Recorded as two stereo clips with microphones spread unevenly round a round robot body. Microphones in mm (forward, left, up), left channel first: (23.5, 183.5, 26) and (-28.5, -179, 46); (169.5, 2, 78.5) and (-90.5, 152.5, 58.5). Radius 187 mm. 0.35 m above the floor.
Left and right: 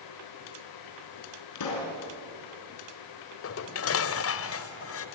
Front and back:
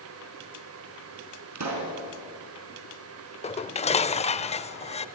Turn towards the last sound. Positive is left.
turn(degrees=40)